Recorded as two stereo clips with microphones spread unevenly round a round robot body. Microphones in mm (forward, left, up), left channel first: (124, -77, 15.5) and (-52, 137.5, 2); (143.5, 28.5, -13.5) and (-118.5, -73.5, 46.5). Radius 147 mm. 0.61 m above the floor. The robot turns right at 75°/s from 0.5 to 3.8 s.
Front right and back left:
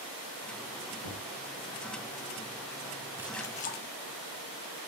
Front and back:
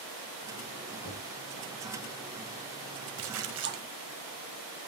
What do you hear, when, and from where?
1.0 s knocking: 55° right, 5 m; by 1.3 s 40° right, 5 m
3.2 s a splash: 150° right, 0.8 m; by 3.8 s 105° right, 0.8 m